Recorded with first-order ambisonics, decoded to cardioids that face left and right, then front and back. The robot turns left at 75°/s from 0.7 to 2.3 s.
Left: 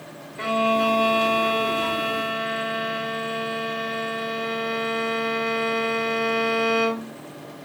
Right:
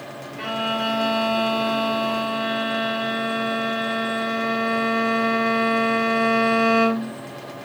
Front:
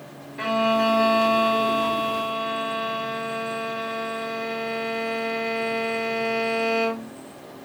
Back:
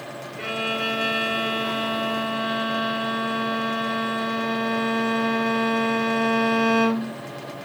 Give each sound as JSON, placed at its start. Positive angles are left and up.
{"t": 0.4, "sound": "a violin", "azimuth_deg": 5, "distance_m": 1.9}